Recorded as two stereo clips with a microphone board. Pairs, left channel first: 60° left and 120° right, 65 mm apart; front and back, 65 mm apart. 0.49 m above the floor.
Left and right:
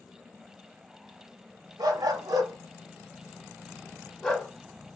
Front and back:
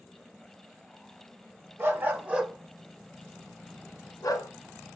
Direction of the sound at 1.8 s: 125° right.